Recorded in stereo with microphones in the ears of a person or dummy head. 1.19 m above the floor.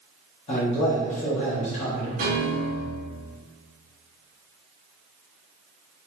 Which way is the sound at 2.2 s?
40° right (ahead or behind).